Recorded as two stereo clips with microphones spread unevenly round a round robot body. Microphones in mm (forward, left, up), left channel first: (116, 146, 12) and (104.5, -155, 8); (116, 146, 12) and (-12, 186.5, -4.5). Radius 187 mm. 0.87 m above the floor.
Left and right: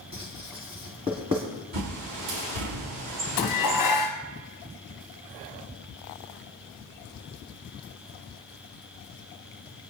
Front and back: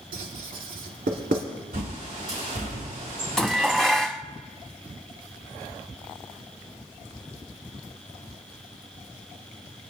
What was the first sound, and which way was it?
Writing, 170° right.